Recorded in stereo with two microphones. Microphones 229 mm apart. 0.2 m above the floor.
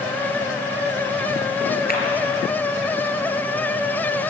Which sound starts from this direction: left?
A clap, at 1.9 s.